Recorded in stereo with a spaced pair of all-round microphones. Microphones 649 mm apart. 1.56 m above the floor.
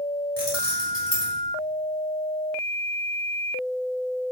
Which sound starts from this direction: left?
Keys jangling, at 0.4 s.